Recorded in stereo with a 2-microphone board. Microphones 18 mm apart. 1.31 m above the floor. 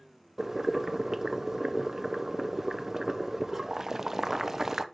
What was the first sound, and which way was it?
Boiling, 25° right (ahead or behind).